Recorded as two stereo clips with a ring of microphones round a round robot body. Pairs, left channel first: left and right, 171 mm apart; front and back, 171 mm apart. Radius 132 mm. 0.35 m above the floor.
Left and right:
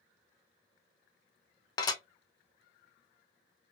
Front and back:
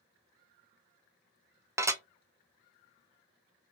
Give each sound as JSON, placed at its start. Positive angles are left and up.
{"t": 1.8, "sound": "dishes clattering", "azimuth_deg": 125, "distance_m": 0.5}